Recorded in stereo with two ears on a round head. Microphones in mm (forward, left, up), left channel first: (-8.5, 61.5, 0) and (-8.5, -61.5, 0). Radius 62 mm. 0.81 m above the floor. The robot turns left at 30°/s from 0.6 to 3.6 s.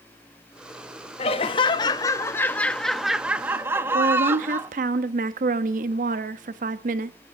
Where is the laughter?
55° left, 0.9 m; by 4.7 s 15° right, 0.9 m.